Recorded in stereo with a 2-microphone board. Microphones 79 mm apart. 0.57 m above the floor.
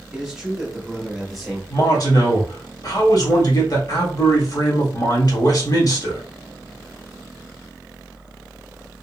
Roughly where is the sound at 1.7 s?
Left.